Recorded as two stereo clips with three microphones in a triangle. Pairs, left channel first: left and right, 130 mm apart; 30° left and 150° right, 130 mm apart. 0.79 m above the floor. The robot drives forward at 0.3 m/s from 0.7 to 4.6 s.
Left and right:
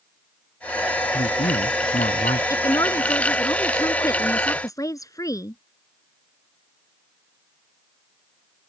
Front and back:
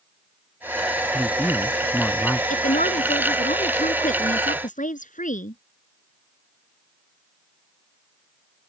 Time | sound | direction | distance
1.1 | a man speaking | 105° left | ?
2.5 | a woman speaking | 25° left | ?